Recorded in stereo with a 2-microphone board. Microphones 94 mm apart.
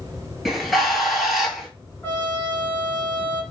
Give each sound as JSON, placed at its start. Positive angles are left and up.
{"t": 0.5, "sound": "a bird", "side_deg": 0, "distance_m": 0.7}
{"t": 2.0, "sound": "a trumpet", "side_deg": 20, "distance_m": 0.9}